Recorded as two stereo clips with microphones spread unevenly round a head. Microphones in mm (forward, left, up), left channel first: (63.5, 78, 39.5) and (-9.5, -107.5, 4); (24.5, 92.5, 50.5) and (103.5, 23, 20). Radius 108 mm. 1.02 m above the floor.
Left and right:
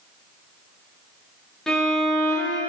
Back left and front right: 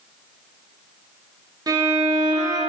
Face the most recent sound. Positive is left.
turn(degrees=-25)